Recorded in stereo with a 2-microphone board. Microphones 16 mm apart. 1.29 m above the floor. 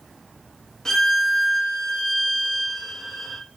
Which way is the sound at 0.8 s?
35° left (ahead or behind).